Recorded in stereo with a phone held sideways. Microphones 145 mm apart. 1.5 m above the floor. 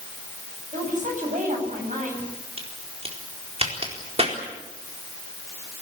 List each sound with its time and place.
0.7 s a woman speaking: 60° right (ahead or behind), 9.5 m
2.6 s a crack: 45° right (ahead or behind), 4 m